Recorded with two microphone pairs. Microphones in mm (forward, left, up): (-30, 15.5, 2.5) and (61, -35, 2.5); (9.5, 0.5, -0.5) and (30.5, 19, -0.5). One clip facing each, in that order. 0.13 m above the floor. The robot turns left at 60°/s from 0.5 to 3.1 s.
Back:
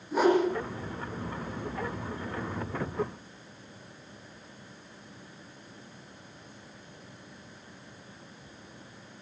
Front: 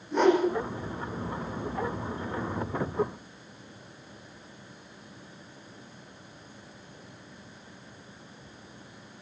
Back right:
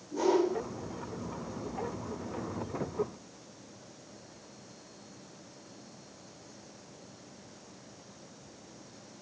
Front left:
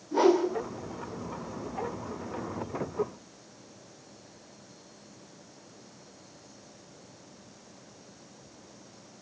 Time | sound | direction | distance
0.1 | a whoosh | 65° left | 7 m